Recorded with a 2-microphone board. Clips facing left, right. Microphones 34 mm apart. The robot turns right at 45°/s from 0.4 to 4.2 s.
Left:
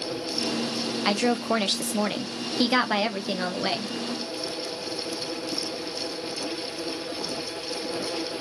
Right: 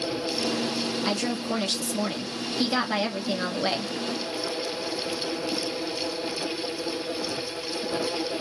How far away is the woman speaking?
About 0.5 m.